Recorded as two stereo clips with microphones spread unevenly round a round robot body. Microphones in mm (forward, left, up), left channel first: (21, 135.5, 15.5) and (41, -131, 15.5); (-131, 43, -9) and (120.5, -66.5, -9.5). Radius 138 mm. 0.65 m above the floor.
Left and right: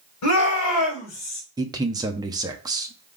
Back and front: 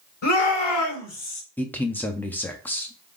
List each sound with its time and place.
0.2 s a shout: 125° left, 3 m; by 1.4 s 120° left, 4 m
1.6 s a man speaking: 130° right, 0.5 m